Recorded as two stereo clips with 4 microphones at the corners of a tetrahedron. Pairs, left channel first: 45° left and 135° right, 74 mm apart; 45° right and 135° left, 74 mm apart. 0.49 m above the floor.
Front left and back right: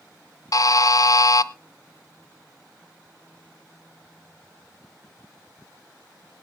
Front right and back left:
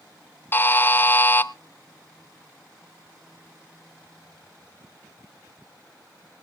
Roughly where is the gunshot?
No gunshot in this recording.